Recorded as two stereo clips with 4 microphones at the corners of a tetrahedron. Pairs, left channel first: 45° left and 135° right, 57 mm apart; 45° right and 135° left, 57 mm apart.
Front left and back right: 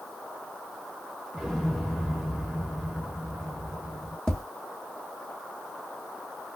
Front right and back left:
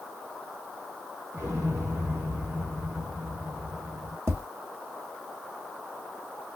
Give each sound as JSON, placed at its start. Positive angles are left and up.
{"t": 1.3, "sound": "an explosion", "azimuth_deg": 135, "distance_m": 1.2}
{"t": 4.3, "sound": "tapping", "azimuth_deg": 120, "distance_m": 1.2}